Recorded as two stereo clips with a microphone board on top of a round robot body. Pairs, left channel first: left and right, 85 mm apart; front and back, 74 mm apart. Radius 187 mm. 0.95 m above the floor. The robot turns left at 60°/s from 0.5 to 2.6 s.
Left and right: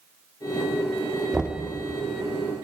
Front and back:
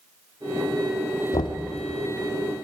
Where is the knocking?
Straight ahead, 1.6 m; by 1.7 s 20° right, 1.6 m.